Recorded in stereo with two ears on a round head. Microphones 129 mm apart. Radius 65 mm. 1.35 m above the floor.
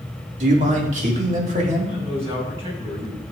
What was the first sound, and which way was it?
A man speaking, 50° right (ahead or behind).